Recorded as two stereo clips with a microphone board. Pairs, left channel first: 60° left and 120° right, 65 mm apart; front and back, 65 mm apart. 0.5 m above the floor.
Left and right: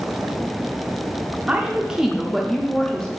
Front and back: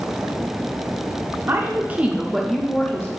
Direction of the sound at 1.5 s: Straight behind.